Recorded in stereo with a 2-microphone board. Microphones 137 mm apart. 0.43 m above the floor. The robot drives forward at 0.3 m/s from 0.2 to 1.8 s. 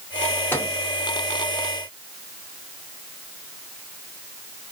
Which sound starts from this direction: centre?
A microwave, at 0.5 s.